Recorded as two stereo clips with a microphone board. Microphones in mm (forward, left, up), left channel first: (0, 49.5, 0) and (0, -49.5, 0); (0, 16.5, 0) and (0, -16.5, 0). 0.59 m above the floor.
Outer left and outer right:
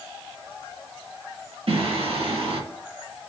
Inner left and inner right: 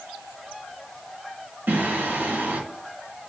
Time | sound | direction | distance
1.7 | singing | 75° right (ahead or behind) | 3 m